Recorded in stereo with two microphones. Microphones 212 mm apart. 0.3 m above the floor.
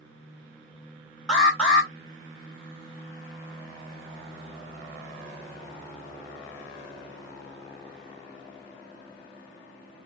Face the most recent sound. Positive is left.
turn(degrees=5)  # may be behind; listen again after turning